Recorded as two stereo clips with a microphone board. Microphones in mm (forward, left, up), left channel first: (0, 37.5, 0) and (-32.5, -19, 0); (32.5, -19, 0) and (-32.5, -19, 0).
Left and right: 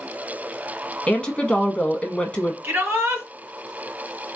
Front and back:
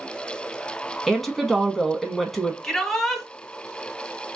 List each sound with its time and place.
1.1 s a woman speaking: 80° left, 1.0 m
2.6 s a shout: 75° right, 1.9 m